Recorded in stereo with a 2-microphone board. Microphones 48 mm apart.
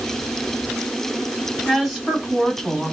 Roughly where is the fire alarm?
No fire alarm in this recording.